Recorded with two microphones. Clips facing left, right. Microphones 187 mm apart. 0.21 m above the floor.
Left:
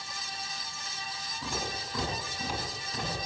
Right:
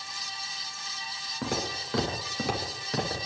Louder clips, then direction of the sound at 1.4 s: Right 5 dB; 80° right.